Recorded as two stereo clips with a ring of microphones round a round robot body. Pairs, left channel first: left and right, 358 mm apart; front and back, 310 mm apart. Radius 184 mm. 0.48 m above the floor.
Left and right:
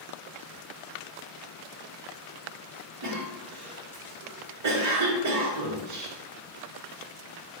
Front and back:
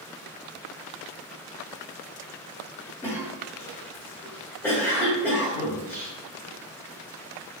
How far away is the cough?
About 1.2 m.